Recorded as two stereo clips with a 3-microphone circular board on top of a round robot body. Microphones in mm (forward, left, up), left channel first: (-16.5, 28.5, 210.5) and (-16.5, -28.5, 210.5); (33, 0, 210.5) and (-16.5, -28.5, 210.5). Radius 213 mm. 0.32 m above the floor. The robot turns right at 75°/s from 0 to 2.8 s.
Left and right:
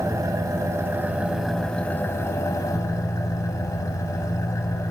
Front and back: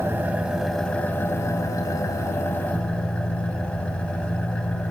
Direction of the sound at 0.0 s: 110° right.